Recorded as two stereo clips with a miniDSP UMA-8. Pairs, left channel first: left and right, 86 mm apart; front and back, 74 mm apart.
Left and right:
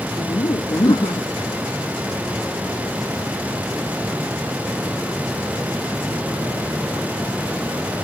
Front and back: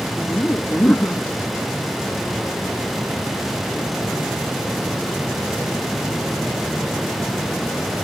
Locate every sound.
0.2 s laughter: 65° left